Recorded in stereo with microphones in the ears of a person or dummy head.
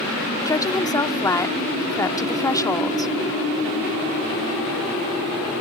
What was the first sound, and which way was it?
A woman speaking, 10° left (ahead or behind).